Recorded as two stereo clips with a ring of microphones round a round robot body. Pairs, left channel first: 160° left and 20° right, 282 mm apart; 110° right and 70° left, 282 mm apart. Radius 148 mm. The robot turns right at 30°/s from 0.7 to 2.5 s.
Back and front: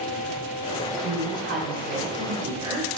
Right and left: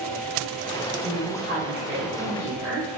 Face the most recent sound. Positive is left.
turn(degrees=45)